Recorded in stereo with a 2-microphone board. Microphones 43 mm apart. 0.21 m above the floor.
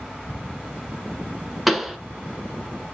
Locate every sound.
1.7 s a pop: centre (ahead or behind), 0.9 m